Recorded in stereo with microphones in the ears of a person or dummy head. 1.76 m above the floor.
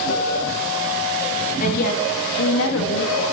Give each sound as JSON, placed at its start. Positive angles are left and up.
{"t": 1.6, "sound": "a woman speaking", "side_deg": 50, "distance_m": 2.5}